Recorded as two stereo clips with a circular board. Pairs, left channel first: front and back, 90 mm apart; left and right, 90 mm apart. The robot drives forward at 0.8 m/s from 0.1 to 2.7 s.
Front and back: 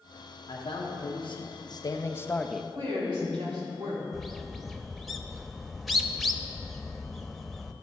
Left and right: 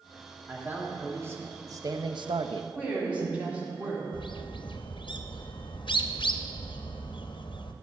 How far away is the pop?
I don't hear a pop.